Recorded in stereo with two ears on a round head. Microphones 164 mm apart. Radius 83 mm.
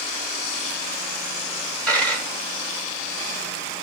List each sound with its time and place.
1.9 s a dropped coin: 5° left (ahead or behind), 1.4 m